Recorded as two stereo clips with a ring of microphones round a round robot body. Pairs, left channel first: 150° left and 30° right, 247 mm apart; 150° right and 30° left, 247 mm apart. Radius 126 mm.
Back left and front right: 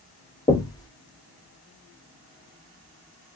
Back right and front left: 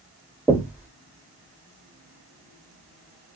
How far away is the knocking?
About 1.2 m.